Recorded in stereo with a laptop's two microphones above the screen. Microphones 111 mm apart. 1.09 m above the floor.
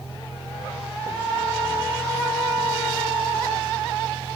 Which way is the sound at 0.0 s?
35° left (ahead or behind).